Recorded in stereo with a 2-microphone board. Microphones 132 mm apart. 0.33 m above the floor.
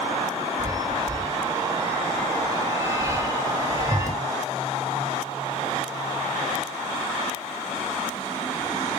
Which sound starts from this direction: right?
A chime, at 0.6 s.